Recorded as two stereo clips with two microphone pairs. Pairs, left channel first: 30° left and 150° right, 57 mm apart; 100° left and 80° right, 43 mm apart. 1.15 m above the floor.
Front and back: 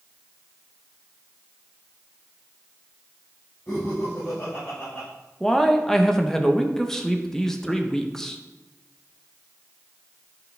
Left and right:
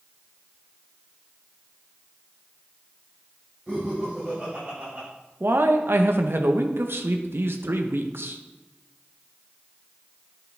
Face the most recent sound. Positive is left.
turn(degrees=-50)